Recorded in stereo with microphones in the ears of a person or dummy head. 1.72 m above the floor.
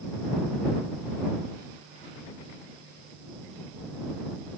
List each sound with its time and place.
Only background noise.